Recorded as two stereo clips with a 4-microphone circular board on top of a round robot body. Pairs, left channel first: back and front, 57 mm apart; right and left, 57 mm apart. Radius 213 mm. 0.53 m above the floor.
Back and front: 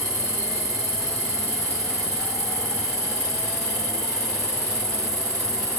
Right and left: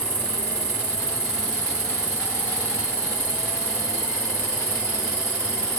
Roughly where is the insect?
Ahead.